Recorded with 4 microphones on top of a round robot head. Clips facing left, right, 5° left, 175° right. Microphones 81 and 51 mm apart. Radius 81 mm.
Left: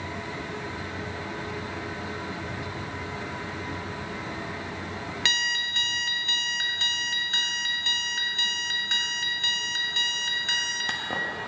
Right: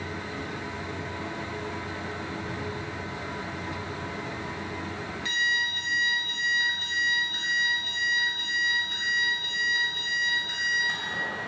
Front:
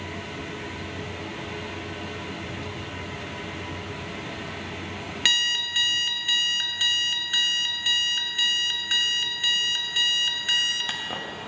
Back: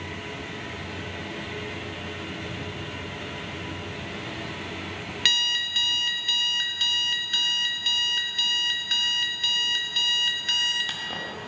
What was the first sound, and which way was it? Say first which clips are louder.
An alarm clock: right 3 dB, front 1 dB; 80° left.